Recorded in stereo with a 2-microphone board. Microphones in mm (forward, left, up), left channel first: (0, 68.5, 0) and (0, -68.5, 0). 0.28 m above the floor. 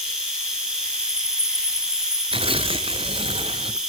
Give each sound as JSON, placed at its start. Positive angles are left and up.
{"t": 0.0, "sound": "an insect", "side_deg": -5, "distance_m": 5.0}
{"t": 2.3, "sound": "tearing paper", "side_deg": -45, "distance_m": 1.0}